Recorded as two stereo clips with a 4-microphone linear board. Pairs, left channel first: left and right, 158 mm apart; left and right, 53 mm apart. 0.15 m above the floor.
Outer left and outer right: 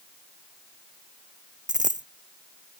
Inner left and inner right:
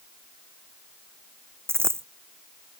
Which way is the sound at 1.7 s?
50° right (ahead or behind).